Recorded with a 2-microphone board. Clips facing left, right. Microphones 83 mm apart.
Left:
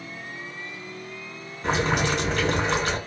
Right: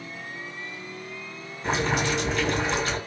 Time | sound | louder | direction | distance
1.6 | boiling | left 2 dB | 60° left (ahead or behind) | 1.5 m